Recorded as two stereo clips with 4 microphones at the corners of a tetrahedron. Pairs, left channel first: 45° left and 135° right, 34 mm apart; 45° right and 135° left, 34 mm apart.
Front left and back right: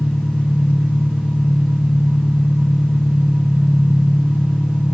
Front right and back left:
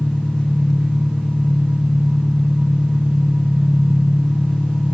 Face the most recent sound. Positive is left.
turn(degrees=25)